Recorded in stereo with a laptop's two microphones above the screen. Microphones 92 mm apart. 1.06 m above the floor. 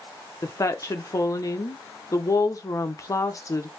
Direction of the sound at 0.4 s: 35° left (ahead or behind).